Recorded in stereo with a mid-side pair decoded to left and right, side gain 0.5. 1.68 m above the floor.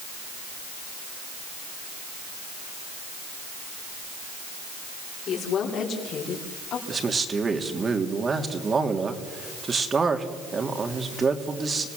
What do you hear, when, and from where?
5.3 s a woman speaking: 65° left, 6.5 m; by 6.8 s 60° left, 5.5 m
6.9 s a man speaking: 30° right, 3 m